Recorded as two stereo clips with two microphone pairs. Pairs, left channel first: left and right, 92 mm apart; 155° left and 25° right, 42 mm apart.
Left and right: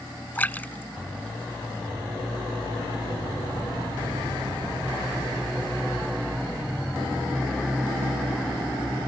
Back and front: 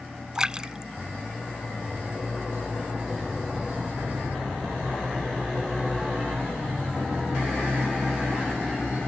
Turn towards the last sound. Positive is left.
turn(degrees=30)